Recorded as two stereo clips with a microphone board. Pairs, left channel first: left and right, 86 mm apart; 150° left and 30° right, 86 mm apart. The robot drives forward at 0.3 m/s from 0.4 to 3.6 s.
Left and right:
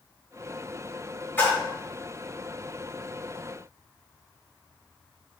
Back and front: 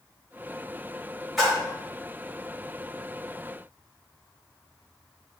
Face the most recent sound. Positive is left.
turn(degrees=120)